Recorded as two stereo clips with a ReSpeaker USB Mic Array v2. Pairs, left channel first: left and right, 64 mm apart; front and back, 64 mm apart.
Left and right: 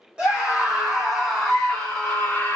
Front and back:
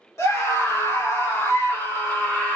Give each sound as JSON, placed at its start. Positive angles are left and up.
{"t": 0.2, "sound": "a scream", "azimuth_deg": -20, "distance_m": 1.7}